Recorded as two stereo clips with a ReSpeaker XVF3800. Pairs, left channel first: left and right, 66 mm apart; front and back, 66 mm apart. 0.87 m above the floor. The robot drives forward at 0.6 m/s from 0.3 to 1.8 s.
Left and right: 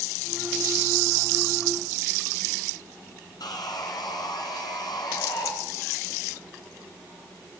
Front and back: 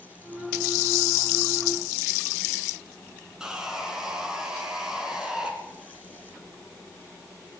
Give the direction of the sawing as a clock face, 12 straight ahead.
9 o'clock.